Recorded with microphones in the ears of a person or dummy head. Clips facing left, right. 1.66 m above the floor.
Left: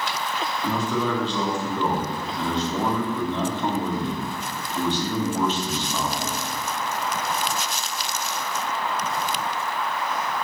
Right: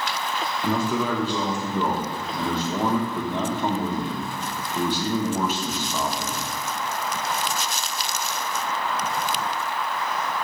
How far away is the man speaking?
About 0.7 m.